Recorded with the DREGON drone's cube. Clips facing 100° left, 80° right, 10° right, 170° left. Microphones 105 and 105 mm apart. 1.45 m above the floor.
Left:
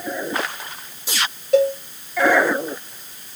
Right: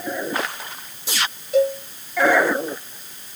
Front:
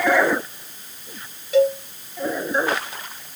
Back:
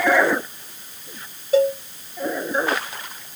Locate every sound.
1.5 s a cowbell: 115° left, 1.8 m